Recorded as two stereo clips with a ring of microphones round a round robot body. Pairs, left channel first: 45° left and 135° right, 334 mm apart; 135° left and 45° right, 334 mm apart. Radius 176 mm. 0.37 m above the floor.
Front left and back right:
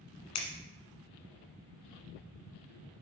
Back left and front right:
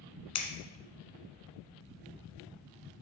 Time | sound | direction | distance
0.3 | scissors | 90° left | 1.8 m